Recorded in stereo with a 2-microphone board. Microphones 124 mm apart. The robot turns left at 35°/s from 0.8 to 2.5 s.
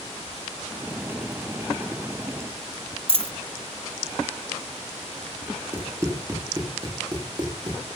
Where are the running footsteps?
25° right (ahead or behind), 3.5 m; by 7.8 s 40° right (ahead or behind), 3.5 m.